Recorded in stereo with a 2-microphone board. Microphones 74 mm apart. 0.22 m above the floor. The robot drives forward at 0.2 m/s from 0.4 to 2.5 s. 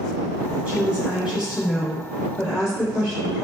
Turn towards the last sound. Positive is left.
turn(degrees=-15)  # may be behind; listen again after turning